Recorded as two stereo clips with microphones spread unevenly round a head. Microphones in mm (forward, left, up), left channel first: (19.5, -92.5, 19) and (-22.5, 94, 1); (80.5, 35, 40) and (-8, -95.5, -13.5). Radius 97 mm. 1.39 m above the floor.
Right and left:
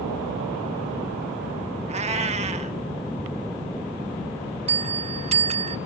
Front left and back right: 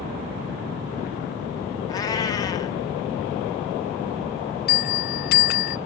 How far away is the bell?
About 0.6 m.